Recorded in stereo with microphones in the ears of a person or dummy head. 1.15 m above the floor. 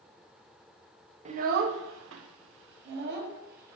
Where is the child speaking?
35° right (ahead or behind), 0.5 m; by 3.8 s 55° right (ahead or behind), 1.2 m.